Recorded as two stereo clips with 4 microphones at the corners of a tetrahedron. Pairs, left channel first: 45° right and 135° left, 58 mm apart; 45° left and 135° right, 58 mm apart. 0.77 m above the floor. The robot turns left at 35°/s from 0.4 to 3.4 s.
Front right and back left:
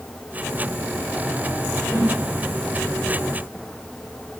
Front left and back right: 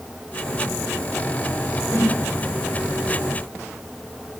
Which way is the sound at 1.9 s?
15° right.